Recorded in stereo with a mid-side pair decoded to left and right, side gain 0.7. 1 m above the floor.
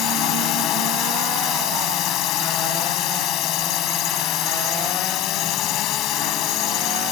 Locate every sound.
0.0 s a drone: 55° left